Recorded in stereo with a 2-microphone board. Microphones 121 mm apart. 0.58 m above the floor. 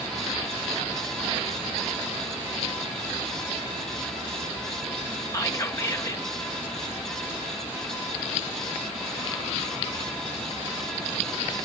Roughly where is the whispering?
Left.